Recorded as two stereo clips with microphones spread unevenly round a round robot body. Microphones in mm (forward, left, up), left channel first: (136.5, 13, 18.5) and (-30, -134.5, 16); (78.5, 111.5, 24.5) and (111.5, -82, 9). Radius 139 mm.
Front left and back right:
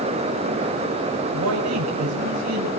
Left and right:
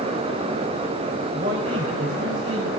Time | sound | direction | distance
1.3 | a man speaking | 145° right | 5 m